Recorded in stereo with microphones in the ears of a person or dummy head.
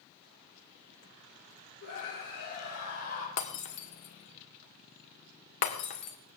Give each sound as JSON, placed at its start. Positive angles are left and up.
{"t": 1.8, "sound": "a scream", "side_deg": 55, "distance_m": 5.5}
{"t": 3.4, "sound": "breaking glass", "side_deg": 45, "distance_m": 1.7}